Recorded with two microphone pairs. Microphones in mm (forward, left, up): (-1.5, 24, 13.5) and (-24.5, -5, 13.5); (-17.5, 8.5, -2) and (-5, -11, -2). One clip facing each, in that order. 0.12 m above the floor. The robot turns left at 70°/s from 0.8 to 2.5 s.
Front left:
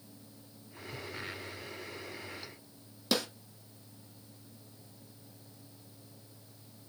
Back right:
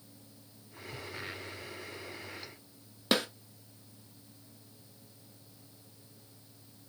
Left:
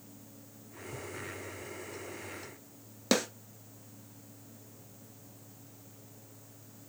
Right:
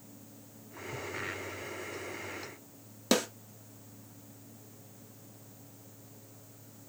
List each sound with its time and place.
3.1 s a snare drum: 155° right, 1.6 m